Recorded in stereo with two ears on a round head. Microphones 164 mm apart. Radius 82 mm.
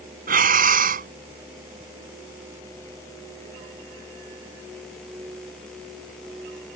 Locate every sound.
0.3 s breathing: 50° right (ahead or behind)